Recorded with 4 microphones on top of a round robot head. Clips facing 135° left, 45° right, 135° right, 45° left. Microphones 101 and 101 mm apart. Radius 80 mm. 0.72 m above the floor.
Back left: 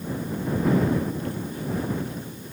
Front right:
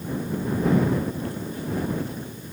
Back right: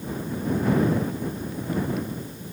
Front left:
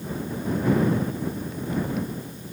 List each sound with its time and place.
Only background noise.